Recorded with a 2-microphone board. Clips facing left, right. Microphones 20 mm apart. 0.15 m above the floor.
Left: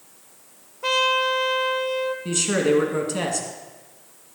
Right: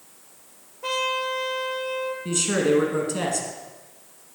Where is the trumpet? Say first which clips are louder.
Left 5 dB; 25° left (ahead or behind), 0.9 m.